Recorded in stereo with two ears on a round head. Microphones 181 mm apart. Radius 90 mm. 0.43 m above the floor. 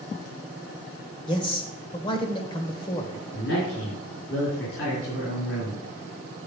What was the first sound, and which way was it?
A man speaking, 25° left (ahead or behind).